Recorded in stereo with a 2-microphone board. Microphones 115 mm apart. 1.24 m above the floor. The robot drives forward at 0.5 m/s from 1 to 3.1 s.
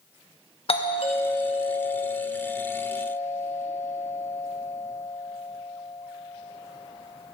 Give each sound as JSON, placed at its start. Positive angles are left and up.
{"t": 0.7, "sound": "a doorbell", "side_deg": 55, "distance_m": 1.3}